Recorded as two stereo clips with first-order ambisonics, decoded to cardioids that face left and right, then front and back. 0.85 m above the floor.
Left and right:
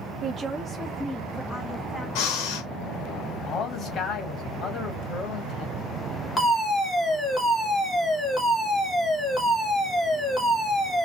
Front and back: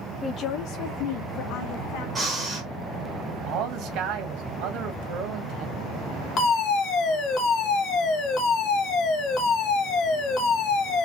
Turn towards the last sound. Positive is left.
turn(degrees=15)